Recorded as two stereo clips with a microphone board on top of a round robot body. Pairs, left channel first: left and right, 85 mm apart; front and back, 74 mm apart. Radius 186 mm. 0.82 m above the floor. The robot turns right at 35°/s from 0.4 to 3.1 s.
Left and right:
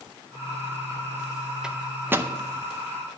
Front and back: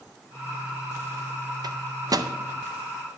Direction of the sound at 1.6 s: 170° right.